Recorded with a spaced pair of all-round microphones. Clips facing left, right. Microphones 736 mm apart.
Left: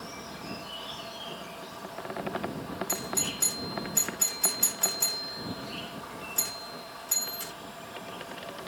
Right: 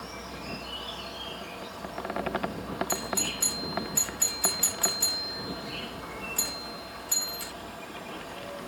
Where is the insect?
80° right.